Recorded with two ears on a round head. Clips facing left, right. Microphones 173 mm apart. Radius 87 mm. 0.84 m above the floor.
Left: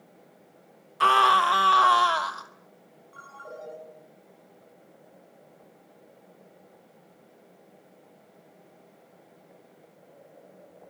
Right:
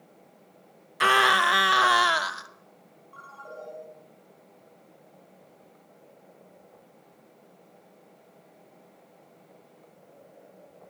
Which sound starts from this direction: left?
A ringtone, at 3.1 s.